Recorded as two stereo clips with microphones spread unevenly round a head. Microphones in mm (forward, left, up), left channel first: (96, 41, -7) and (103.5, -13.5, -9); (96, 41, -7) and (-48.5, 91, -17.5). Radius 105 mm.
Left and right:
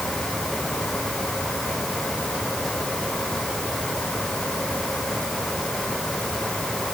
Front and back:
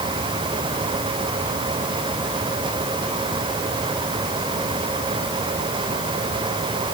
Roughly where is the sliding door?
No sliding door in this recording.